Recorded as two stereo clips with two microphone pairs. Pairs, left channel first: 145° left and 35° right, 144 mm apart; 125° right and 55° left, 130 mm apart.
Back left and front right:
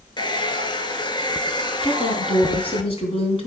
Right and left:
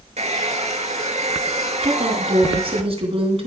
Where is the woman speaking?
95° left, 3 m.